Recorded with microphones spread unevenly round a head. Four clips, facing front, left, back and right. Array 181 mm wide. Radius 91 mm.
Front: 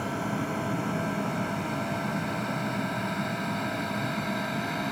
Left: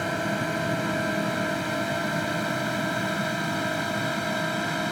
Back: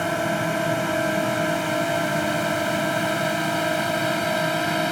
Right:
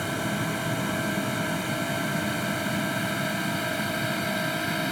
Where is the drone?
165° left; by 4.9 s 175° left.